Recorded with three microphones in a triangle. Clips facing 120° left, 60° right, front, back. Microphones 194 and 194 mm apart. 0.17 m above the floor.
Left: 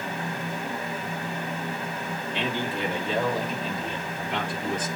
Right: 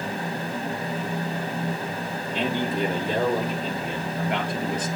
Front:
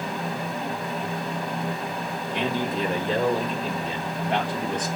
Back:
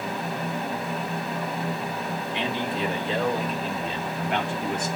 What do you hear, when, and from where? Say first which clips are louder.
2.3 s a man speaking: right 5 dB, front 3 dB; 30° right, 3 m; by 4.9 s 55° right, 4.5 m